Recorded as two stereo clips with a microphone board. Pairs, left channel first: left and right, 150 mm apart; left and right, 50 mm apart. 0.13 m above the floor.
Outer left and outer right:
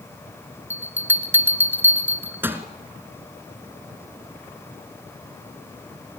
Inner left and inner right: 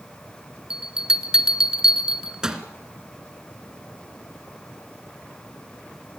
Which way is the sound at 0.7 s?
15° right (ahead or behind).